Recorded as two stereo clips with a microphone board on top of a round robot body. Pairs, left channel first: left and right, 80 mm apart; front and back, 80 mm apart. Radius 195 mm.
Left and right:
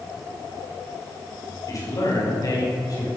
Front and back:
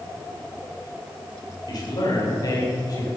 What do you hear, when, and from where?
1.7 s a man speaking: 40° left, 4.5 m; by 3.1 s 45° left, 5.5 m